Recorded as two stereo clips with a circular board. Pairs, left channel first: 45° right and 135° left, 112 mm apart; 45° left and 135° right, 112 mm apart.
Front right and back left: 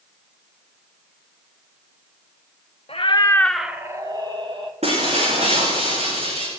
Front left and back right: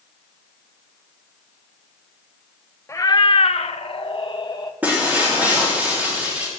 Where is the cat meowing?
20° right, 1.1 m; by 4.7 s 95° left, 2 m.